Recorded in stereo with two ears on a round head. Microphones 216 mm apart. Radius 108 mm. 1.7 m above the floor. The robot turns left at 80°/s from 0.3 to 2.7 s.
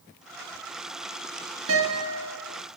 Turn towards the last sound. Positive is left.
turn(degrees=-160)